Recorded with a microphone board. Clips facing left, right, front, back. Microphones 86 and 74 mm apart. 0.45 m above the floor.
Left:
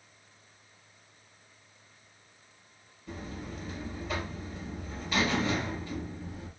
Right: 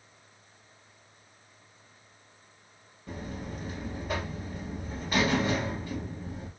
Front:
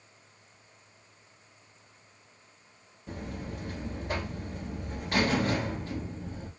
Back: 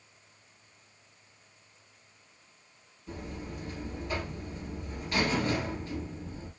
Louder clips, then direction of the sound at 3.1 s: Right 2 dB, front 2 dB; 50° right.